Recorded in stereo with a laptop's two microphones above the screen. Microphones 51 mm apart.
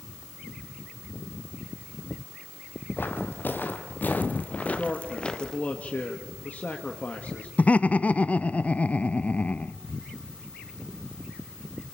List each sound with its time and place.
3.0 s footsteps: 45° left (ahead or behind), 2 m; by 5.6 s 15° left (ahead or behind), 1.1 m
4.6 s a man speaking: 30° left (ahead or behind), 1.4 m
7.6 s laughter: 30° left (ahead or behind), 0.6 m